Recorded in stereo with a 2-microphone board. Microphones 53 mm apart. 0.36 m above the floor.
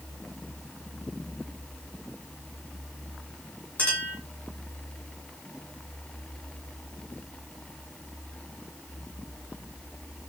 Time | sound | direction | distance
3.8 | a clink | 35° left (ahead or behind) | 3 m